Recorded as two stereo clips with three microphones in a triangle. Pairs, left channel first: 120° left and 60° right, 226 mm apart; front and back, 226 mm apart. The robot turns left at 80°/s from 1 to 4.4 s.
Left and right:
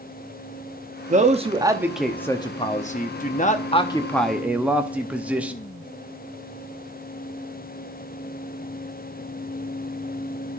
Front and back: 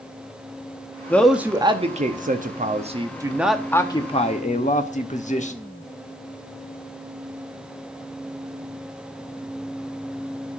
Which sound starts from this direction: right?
A man speaking, at 1.1 s.